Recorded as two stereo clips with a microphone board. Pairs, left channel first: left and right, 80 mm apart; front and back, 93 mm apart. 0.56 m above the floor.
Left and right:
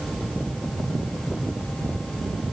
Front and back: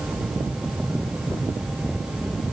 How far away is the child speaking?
No child speaking in this recording.